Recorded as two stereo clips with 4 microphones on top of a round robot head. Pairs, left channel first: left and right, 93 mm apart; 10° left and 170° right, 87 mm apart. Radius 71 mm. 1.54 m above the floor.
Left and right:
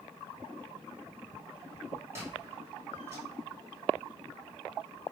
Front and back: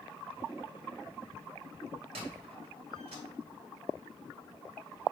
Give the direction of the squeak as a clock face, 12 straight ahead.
5 o'clock.